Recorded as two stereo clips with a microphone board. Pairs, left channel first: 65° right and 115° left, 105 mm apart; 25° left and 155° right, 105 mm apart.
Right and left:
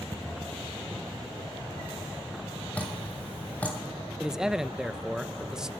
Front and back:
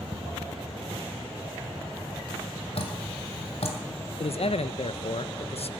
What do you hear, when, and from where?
2.8 s dripping: 10° left, 2 m
4.2 s a man speaking: 30° left, 0.5 m